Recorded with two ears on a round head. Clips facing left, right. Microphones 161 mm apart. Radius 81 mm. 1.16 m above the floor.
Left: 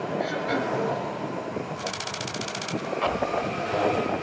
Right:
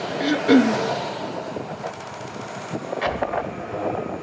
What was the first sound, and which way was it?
Throat clearing, 70° right (ahead or behind).